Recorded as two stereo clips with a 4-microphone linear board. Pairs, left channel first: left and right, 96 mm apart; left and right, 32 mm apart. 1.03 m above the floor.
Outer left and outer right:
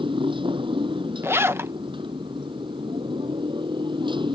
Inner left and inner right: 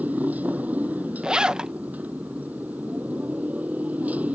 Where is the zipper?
25° right (ahead or behind).